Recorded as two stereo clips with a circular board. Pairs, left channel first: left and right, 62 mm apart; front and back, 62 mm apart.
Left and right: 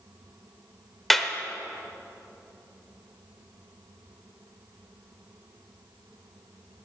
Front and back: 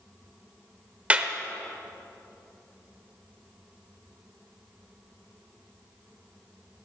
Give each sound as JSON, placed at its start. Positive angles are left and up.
{"t": 1.1, "sound": "a clap", "azimuth_deg": 170, "distance_m": 0.8}